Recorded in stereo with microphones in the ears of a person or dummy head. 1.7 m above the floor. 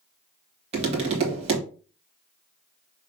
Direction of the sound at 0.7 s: 35° right (ahead or behind).